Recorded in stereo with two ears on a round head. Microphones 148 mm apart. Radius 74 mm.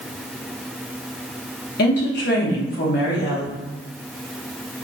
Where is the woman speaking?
65° left (ahead or behind), 1.0 m.